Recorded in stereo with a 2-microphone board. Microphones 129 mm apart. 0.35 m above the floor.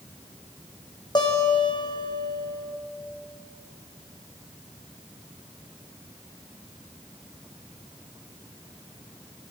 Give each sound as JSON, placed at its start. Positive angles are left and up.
{"t": 1.1, "sound": "a guitar", "side_deg": 35, "distance_m": 3.5}